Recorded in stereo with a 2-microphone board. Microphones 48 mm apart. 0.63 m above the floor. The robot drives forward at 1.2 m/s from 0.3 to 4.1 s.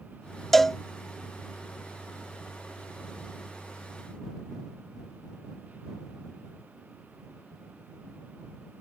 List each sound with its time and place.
0.5 s a cowbell: 5° left (ahead or behind)